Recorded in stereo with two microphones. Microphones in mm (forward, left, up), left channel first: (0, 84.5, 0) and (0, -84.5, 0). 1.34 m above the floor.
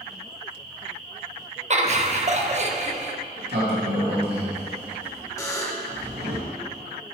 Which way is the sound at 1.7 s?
40° right (ahead or behind).